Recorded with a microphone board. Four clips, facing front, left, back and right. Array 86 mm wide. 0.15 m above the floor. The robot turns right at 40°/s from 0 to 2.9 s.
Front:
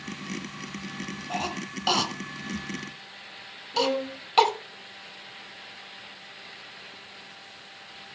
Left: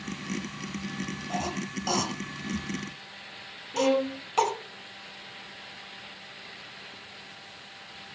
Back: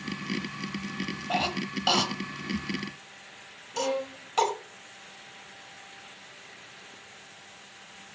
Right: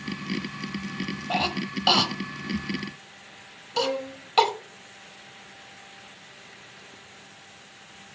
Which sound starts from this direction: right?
A cough, at 1.3 s.